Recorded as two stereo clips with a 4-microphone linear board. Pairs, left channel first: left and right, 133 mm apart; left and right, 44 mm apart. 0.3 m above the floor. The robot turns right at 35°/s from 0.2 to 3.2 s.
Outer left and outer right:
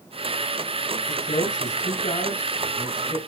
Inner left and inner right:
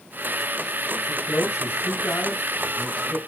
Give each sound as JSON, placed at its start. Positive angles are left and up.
{"t": 1.1, "sound": "a man speaking", "azimuth_deg": 85, "distance_m": 4.0}